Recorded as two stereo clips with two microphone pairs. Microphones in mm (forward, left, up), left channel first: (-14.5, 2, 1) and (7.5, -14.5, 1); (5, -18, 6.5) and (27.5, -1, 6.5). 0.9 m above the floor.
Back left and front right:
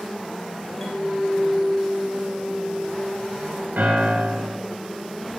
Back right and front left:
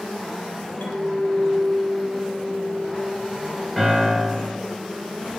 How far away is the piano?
About 8.5 m.